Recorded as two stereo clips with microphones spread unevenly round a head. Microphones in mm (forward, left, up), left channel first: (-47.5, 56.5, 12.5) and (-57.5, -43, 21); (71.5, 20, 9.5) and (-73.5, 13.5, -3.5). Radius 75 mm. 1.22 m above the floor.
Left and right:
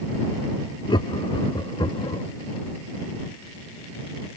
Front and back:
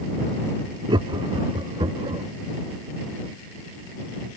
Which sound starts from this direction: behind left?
Laughter, at 0.9 s.